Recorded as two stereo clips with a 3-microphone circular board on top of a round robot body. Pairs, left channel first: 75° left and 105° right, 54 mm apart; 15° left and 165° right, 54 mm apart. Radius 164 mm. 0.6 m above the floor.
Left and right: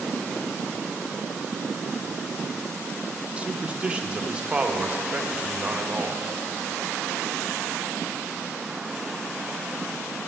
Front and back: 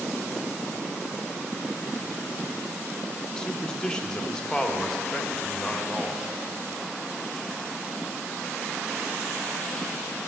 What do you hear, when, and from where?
3.4 s a man speaking: 45° right, 1.1 m